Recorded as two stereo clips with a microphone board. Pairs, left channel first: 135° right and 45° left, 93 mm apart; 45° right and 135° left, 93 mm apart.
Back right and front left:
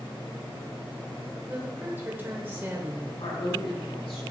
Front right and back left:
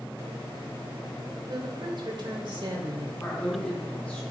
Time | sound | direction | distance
1.5 | a woman speaking | 110° left | 2.0 m
3.2 | a woman speaking | 120° right | 5 m